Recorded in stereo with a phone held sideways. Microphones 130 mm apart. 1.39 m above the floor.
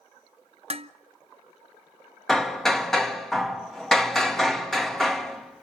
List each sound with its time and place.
0.7 s dishes clattering: 45° right (ahead or behind), 0.7 m
2.3 s hammering: 5° left (ahead or behind), 1.5 m